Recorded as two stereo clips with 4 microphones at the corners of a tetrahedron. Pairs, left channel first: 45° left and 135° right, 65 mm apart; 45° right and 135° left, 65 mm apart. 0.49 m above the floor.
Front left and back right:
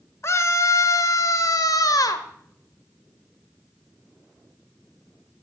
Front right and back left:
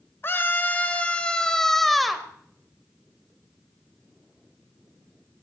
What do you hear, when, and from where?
0.2 s a scream: 5° left, 1.4 m; by 2.3 s 50° left, 1.5 m